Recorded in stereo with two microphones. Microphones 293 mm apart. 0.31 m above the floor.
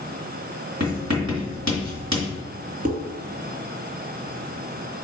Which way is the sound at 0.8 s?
65° right (ahead or behind).